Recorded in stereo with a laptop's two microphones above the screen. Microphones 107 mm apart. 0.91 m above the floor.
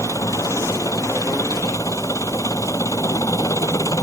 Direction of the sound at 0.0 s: 30° left (ahead or behind).